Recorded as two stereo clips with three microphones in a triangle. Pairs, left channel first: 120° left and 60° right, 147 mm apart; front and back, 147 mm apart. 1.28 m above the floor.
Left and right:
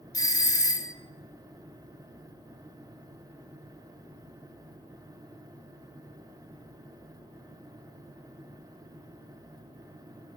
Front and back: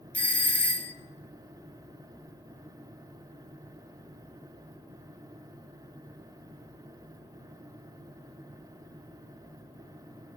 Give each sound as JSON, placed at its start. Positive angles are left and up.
{"t": 0.1, "sound": "a doorbell", "azimuth_deg": 70, "distance_m": 0.6}